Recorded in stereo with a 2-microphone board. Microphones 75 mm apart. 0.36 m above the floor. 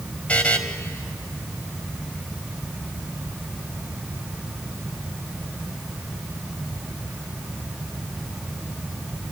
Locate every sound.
0.3 s a buzzer: 20° left (ahead or behind), 1.5 m